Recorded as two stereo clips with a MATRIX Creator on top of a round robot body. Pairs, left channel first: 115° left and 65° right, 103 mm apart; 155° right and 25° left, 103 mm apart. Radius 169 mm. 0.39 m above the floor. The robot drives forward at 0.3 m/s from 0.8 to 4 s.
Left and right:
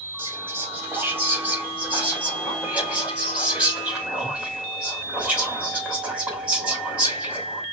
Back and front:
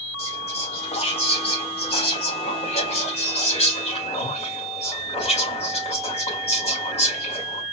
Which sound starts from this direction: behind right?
Whispering, at 0.2 s.